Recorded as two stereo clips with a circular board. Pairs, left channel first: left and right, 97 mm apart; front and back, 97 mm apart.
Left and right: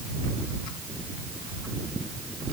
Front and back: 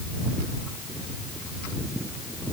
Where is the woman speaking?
No woman speaking in this recording.